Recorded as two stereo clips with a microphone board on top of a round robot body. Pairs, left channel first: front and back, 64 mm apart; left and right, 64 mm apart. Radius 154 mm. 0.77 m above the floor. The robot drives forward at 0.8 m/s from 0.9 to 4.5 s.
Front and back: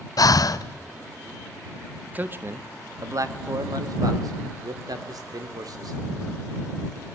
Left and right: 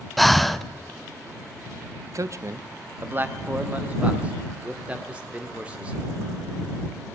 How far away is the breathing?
About 0.8 m.